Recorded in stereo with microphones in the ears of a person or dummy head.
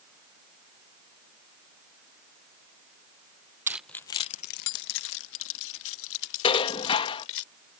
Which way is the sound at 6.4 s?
30° left (ahead or behind).